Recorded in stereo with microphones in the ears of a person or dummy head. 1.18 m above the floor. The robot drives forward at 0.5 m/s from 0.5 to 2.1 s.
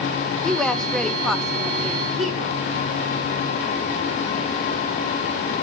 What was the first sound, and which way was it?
A woman speaking, 5° left (ahead or behind).